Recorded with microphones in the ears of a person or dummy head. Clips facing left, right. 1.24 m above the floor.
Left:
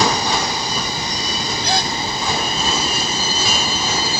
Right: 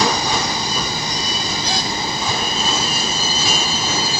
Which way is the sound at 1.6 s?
55° left (ahead or behind).